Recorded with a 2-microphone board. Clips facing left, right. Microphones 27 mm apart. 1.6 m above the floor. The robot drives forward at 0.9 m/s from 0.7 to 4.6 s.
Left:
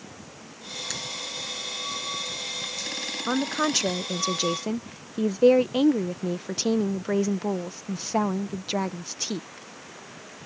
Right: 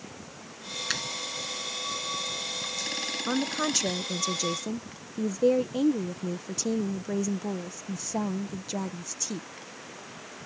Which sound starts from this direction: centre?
A woman speaking, at 3.3 s.